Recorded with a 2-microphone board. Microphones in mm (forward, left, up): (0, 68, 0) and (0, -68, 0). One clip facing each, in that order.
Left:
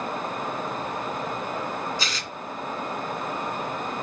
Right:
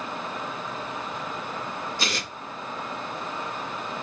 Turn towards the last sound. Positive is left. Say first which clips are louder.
# right 1 dB
turn(degrees=-65)  # may be behind; listen again after turning